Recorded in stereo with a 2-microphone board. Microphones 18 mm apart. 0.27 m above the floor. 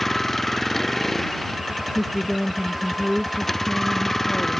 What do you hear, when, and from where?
0.0 s a vehicle: 10° left (ahead or behind)
1.9 s a woman speaking: 5° left (ahead or behind)